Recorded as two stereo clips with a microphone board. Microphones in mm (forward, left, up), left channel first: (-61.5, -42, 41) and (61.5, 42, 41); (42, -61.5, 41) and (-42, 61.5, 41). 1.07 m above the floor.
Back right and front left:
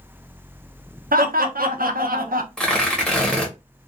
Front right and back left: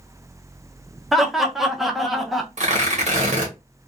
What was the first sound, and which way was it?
Laughter, 35° left.